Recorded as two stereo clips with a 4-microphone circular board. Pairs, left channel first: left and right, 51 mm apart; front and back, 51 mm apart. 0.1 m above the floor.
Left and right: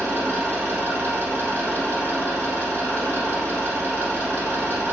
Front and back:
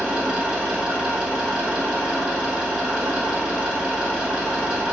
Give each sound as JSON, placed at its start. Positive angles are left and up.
{"t": 0.0, "sound": "an engine running", "azimuth_deg": -110, "distance_m": 1.5}